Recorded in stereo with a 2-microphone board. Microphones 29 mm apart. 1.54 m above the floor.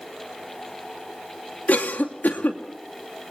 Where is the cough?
80° left, 2.5 m.